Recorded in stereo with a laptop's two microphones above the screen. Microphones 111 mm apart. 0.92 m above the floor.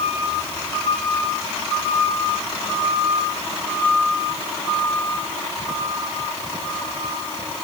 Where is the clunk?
No clunk in this recording.